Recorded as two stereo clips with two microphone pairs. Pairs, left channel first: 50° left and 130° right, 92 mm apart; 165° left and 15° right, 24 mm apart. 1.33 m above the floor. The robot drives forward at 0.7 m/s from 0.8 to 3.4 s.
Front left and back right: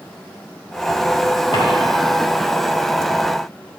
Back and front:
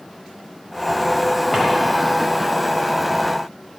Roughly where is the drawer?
Ahead left.